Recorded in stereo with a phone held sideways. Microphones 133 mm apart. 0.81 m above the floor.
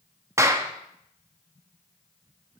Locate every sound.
0.4 s a clap: 20° right (ahead or behind), 0.7 m